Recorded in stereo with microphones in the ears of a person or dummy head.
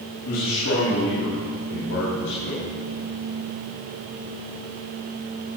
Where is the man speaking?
80° left, 3 m; by 2.6 s 85° left, 4 m.